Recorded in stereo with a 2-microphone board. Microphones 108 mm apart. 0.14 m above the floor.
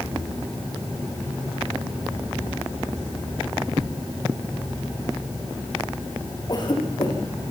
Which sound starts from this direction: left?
A cough, at 6.5 s.